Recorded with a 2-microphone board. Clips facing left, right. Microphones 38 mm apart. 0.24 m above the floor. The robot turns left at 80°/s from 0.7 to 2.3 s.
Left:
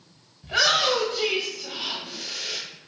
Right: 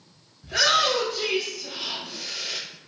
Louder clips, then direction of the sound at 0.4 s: Even; 25° left (ahead or behind).